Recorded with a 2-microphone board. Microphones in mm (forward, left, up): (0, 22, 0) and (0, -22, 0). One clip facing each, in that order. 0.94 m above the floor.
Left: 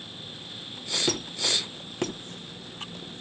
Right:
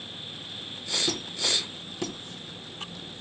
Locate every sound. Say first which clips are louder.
1.1 s a squeak: left 3 dB; 50° left (ahead or behind), 1.0 m